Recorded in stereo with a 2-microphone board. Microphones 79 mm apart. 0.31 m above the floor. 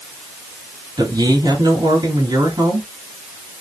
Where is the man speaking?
60° right (ahead or behind), 3.5 m.